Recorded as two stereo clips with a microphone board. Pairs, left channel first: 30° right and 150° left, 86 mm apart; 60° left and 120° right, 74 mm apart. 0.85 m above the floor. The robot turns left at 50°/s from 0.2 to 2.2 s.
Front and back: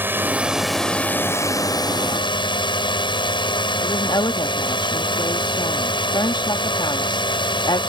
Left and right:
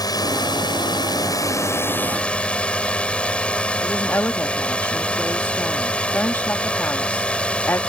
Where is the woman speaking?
Straight ahead.